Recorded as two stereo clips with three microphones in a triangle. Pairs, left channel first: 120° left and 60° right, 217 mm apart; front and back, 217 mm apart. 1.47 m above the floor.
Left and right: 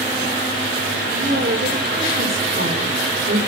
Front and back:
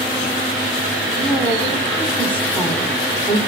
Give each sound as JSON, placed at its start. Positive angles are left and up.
{"t": 1.2, "sound": "a woman speaking", "azimuth_deg": -85, "distance_m": 6.0}